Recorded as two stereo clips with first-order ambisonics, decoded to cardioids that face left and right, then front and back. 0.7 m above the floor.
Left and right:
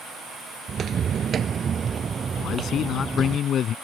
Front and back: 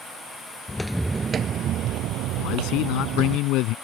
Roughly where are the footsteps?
Ahead right.